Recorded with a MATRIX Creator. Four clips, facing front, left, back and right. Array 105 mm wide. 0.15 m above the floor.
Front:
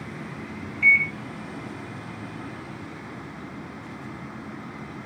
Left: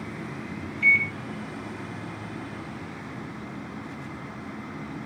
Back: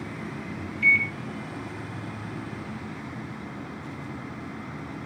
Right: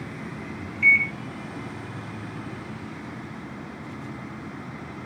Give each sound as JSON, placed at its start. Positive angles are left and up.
{"t": 0.8, "sound": "a microwave", "azimuth_deg": -45, "distance_m": 0.8}